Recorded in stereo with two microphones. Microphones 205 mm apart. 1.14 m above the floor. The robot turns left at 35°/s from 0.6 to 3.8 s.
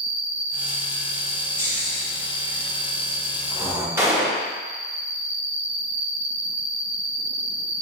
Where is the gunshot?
10° right (ahead or behind), 0.7 m.